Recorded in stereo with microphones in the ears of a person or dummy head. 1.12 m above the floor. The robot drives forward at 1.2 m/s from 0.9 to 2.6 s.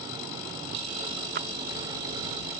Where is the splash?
50° right (ahead or behind); by 1.5 s 45° right (ahead or behind).